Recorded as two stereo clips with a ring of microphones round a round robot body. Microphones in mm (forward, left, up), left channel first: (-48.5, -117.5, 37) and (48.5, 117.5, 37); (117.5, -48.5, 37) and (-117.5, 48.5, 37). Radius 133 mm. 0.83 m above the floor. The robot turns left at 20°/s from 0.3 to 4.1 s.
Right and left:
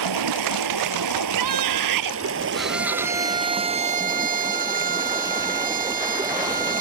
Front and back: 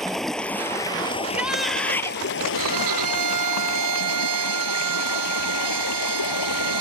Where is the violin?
160° left; by 6.8 s 130° left.